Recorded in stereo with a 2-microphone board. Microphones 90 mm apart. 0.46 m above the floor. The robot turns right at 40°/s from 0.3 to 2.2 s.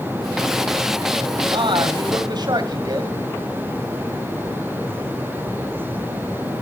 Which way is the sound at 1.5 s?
70° right (ahead or behind).